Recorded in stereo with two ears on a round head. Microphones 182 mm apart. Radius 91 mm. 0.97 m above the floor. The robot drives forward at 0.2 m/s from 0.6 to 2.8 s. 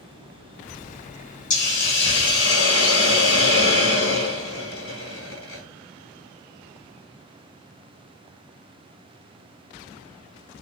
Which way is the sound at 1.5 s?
60° left (ahead or behind).